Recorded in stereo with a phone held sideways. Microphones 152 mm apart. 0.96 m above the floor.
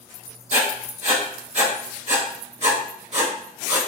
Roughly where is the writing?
Right.